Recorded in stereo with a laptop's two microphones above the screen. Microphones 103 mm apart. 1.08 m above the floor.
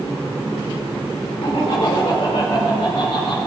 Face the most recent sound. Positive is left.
turn(degrees=70)  # may be behind; listen again after turning